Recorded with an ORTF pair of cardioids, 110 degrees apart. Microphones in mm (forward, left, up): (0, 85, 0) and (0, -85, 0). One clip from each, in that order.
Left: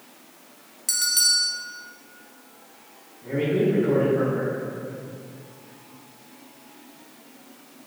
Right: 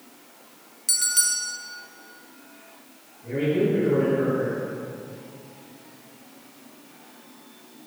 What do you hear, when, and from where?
0.9 s a bell: 5° left, 0.5 m
3.2 s a man speaking: 55° left, 1.5 m